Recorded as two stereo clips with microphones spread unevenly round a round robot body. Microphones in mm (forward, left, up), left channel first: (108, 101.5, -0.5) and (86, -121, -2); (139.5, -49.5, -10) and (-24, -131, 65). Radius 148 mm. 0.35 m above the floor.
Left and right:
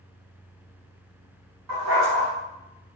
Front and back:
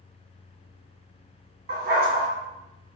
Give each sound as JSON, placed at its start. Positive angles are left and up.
{"t": 1.7, "sound": "a dog barking", "azimuth_deg": -115, "distance_m": 1.2}